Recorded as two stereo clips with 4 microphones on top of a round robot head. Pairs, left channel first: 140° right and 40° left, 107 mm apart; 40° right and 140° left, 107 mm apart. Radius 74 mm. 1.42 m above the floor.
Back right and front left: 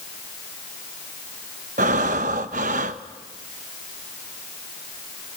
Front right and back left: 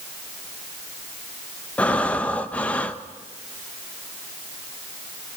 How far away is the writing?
No writing in this recording.